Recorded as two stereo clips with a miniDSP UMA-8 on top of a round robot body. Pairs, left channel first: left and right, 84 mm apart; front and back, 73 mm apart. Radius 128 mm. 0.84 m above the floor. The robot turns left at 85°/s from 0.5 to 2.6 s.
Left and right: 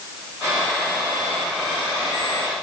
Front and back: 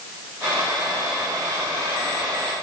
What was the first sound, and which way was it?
Only background noise.